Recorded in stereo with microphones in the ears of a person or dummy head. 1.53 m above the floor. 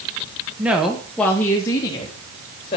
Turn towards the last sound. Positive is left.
turn(degrees=30)  # may be behind; listen again after turning